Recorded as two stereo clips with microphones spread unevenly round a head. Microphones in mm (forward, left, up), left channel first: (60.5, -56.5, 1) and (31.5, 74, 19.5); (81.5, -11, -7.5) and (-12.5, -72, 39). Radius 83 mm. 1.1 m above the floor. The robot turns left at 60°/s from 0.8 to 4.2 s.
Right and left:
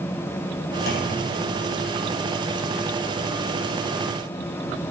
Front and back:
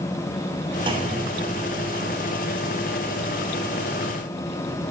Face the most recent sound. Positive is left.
turn(degrees=60)